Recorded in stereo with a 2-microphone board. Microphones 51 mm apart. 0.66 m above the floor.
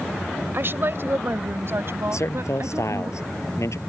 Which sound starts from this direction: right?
A woman speaking, at 0.5 s.